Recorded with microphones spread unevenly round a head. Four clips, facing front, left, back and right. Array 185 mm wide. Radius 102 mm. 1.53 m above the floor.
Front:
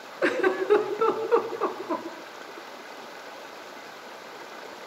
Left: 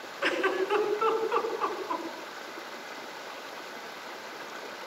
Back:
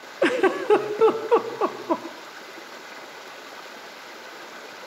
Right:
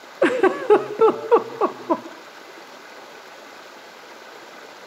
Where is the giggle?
105° right, 1.6 m.